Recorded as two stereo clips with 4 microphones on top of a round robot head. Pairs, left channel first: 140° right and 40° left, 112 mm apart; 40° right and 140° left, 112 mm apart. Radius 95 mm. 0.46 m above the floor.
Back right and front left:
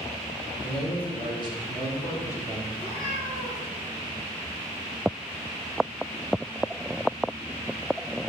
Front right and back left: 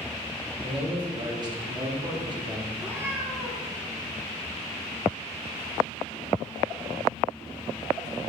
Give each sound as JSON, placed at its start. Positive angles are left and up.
{"t": 0.6, "sound": "a man speaking", "azimuth_deg": -175, "distance_m": 2.5}
{"t": 2.7, "sound": "a cat meowing", "azimuth_deg": -150, "distance_m": 1.7}